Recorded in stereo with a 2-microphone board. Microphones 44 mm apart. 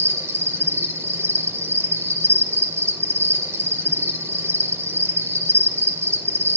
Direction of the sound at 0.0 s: 65° right (ahead or behind).